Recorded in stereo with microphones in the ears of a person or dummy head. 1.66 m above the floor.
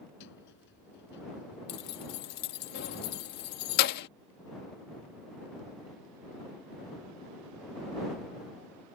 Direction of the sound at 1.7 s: 55° left (ahead or behind).